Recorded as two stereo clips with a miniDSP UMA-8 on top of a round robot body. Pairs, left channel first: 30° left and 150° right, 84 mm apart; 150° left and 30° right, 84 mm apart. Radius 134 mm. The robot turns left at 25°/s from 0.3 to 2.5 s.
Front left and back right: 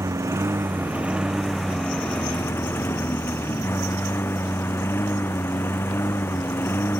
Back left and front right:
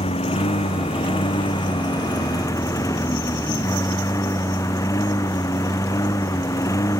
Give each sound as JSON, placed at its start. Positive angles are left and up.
{"t": 0.0, "sound": "a lawn mower", "azimuth_deg": 150}